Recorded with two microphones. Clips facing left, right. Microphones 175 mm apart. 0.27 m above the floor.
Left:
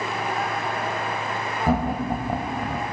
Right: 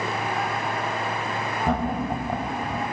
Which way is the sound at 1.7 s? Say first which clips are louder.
Left 3 dB; 10° left (ahead or behind).